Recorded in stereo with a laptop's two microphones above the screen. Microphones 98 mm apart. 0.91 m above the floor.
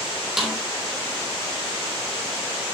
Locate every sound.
0.4 s a snare drum: centre (ahead or behind), 4 m